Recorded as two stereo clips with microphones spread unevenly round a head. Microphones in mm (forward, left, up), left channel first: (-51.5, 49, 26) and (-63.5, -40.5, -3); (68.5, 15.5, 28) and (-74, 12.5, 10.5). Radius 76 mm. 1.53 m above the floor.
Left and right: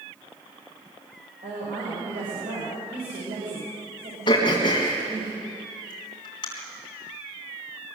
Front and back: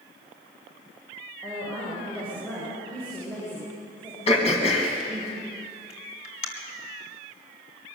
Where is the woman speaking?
85° right, 7 m.